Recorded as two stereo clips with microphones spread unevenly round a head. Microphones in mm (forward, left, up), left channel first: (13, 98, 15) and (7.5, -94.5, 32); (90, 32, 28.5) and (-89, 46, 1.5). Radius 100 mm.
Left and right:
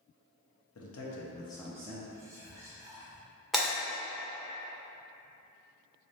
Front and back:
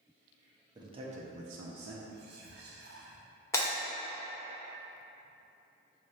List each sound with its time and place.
0.8 s a man speaking: 105° left, 1.0 m; by 2.0 s 150° right, 0.7 m
2.1 s whispering: 160° right, 0.7 m
3.5 s breaking glass: 15° right, 1.4 m